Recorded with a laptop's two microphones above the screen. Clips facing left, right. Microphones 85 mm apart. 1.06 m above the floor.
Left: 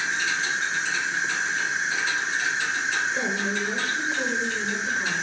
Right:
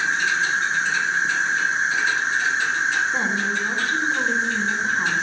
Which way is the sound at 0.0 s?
50° right (ahead or behind).